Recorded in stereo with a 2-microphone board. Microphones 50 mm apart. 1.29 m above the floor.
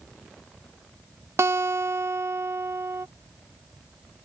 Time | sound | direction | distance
1.4 | a guitar | 65° right (ahead or behind) | ?